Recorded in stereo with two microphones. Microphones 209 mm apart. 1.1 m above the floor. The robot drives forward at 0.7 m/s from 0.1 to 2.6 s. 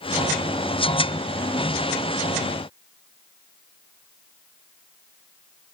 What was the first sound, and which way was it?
Only background noise.